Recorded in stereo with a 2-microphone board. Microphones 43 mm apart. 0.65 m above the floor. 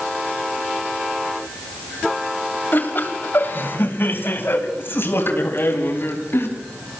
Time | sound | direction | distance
2.7 | laughter | 50° left (ahead or behind) | 3.5 m